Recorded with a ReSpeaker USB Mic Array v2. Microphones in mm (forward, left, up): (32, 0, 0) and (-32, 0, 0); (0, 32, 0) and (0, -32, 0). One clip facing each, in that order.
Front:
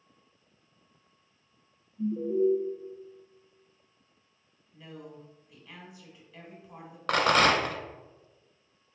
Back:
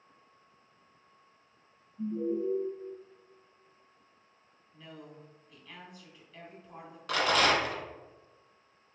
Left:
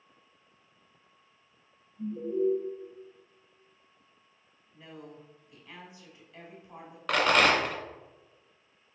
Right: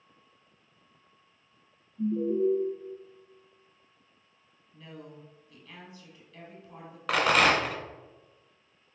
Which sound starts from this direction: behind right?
An alarm, at 2.0 s.